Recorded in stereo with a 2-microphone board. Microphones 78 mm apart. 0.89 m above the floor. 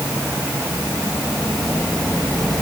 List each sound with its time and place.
Only background noise.